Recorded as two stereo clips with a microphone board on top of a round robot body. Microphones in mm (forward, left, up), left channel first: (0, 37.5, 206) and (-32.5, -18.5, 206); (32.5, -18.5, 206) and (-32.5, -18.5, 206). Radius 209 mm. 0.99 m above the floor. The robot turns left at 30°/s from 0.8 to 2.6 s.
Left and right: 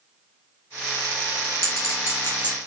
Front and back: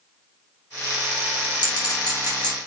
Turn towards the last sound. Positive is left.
turn(degrees=-10)